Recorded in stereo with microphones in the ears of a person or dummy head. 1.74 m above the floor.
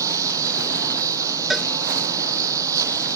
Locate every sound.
0.0 s a lawn mower: 15° right (ahead or behind)
1.5 s a cowbell: centre (ahead or behind)